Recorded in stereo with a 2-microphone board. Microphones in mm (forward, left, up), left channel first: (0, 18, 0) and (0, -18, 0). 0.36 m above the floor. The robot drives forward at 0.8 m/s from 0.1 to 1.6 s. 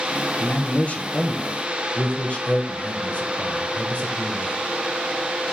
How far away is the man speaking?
About 1.7 m.